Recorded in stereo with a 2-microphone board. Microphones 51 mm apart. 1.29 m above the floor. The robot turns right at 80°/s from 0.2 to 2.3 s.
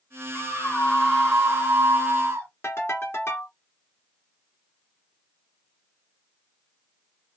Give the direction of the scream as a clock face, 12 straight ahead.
9 o'clock.